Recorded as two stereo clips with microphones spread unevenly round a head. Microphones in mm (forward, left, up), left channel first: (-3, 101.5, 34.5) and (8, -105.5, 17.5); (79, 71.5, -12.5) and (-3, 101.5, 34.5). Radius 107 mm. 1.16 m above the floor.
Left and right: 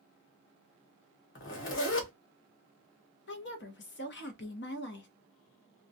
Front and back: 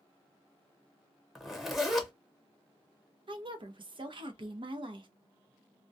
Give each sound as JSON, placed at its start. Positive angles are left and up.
{"t": 1.4, "sound": "a zipper", "azimuth_deg": 65, "distance_m": 1.1}
{"t": 3.3, "sound": "a woman speaking", "azimuth_deg": 130, "distance_m": 0.8}